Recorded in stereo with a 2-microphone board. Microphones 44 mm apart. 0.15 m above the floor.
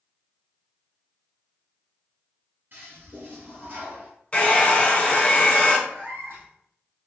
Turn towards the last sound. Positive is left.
turn(degrees=-55)  # may be behind; listen again after turning